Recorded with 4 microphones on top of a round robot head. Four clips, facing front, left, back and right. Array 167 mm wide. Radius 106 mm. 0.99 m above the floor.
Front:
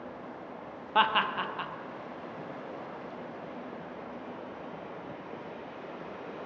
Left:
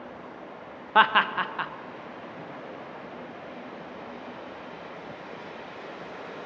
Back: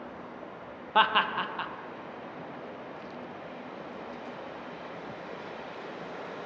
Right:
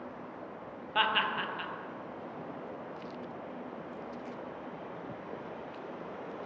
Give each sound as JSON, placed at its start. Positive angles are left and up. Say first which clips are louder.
{"t": 0.9, "sound": "laughter", "louder": "left 9 dB, back 2 dB", "azimuth_deg": 100, "distance_m": 0.9}